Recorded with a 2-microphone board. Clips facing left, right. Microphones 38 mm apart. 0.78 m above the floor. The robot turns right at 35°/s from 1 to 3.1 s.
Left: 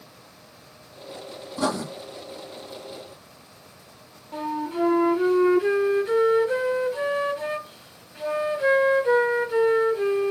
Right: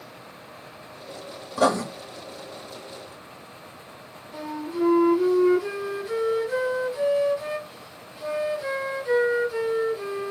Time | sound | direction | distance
1.6 | writing | 70° right (ahead or behind) | 1.1 m
4.3 | a flute | 50° left (ahead or behind) | 0.8 m